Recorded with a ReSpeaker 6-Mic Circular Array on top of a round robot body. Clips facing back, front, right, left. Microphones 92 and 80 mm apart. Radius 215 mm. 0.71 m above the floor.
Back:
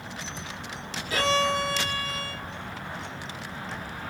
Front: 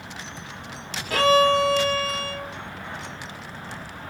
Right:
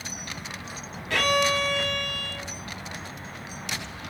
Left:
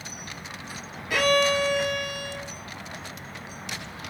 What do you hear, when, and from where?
1.1 s a violin: 10° left, 1.2 m